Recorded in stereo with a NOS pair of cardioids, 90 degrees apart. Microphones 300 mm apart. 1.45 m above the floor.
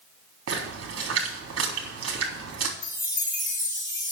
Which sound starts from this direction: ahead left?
A chime, at 2.8 s.